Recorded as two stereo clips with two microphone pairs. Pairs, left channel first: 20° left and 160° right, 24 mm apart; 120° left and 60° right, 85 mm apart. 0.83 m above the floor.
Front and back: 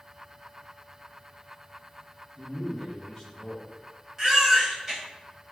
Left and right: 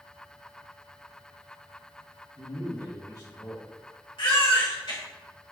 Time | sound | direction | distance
2.4 | a man speaking | 85° left | 1.6 m
4.2 | a baby crying | 120° left | 1.5 m